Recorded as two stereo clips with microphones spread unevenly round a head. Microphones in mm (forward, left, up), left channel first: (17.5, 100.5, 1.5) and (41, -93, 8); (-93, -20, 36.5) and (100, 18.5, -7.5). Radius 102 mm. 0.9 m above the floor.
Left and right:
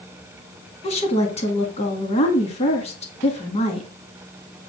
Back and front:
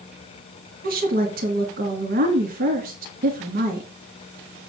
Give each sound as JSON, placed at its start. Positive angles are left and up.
{"t": 0.8, "sound": "a woman speaking", "azimuth_deg": 45, "distance_m": 1.9}